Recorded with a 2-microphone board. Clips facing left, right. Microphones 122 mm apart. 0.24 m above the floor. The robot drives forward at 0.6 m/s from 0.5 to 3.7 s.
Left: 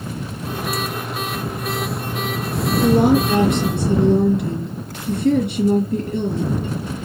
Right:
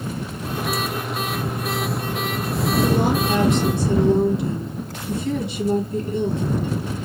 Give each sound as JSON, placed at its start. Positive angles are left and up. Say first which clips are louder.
{"t": 2.8, "sound": "a woman speaking", "louder": "left 7 dB", "side_deg": 60, "distance_m": 4.0}